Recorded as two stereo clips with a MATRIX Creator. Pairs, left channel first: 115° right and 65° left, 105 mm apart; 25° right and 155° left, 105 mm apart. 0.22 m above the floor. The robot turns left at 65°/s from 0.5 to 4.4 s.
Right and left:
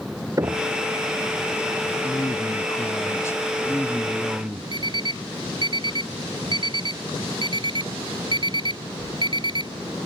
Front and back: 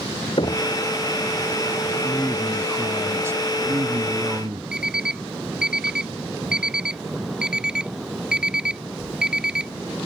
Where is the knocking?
10° left; by 0.7 s 5° right.